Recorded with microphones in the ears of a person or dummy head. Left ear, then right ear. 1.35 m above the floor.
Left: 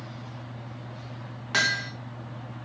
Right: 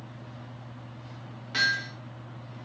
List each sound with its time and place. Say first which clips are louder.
1.5 s hammering: left 1 dB; 40° left (ahead or behind), 1.8 m